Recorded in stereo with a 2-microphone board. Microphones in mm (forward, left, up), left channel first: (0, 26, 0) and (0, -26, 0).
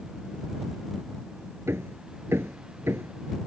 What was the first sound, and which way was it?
Hammering, 60° right (ahead or behind).